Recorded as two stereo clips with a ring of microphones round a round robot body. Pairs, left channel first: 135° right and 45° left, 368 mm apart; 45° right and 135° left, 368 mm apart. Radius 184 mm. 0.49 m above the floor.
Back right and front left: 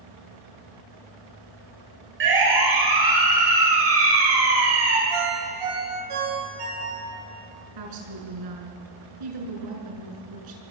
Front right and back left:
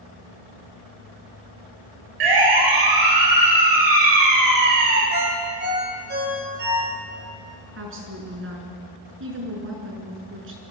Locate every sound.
2.2 s a siren: 105° left, 9 m; by 5.0 s 95° left, 6 m
5.1 s a ringtone: 70° left, 9 m
7.8 s a woman speaking: 75° left, 5.5 m